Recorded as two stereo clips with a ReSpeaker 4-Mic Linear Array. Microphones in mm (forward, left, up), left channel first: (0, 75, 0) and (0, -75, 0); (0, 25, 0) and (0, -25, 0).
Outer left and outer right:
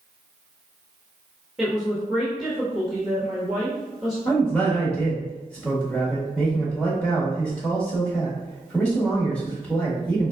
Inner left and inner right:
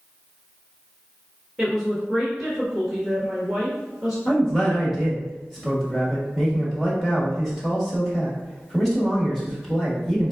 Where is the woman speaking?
5° right (ahead or behind), 1.1 m.